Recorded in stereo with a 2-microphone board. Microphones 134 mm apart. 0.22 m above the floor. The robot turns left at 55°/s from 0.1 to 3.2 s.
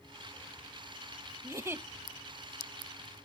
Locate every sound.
1.4 s a giggle: 20° right (ahead or behind), 0.5 m